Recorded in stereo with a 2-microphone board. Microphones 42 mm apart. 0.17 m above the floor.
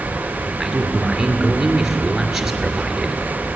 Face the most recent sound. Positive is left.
turn(degrees=-5)  # may be behind; listen again after turning